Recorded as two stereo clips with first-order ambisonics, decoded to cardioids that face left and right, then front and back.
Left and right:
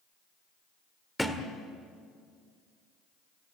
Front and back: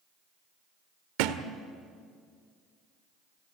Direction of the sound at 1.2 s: Straight behind.